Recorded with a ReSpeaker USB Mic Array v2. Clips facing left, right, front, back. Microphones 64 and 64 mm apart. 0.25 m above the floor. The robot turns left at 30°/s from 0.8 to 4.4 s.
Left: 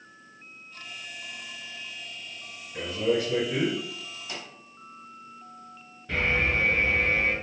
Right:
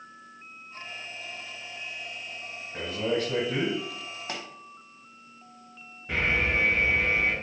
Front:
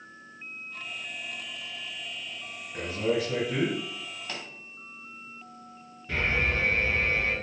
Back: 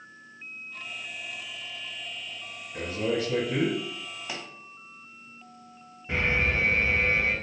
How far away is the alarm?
About 1.0 m.